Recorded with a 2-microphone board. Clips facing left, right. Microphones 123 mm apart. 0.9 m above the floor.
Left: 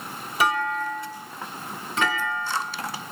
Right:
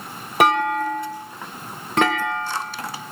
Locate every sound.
0.4 s a clunk: 65° right (ahead or behind), 0.8 m